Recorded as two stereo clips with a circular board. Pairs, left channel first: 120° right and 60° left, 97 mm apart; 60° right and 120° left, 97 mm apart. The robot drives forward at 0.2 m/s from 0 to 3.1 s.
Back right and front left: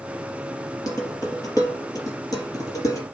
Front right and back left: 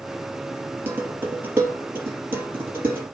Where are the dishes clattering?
170° right, 3.5 m.